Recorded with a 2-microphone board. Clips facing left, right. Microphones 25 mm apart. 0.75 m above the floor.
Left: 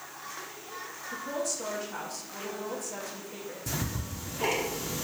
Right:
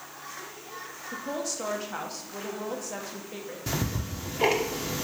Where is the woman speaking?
25° right (ahead or behind), 1.1 m.